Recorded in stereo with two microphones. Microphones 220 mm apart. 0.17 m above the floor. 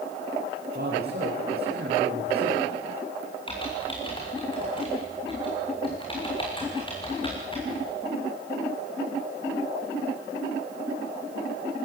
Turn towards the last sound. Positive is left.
turn(degrees=25)  # may be behind; listen again after turning